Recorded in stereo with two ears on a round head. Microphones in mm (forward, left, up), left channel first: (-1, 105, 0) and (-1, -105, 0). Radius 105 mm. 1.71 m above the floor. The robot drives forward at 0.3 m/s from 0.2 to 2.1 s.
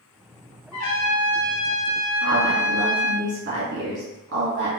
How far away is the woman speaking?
About 1.4 m.